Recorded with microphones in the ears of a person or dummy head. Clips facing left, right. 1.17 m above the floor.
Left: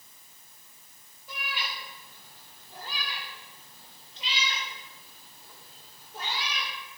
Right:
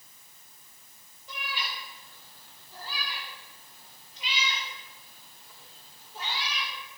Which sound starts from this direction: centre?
A cat meowing, at 1.3 s.